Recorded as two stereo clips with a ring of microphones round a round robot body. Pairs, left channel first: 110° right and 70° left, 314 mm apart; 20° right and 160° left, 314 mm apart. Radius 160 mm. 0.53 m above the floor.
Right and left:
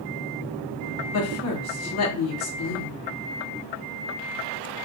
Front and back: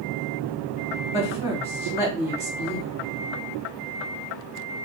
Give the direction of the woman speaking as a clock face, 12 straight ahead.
3 o'clock.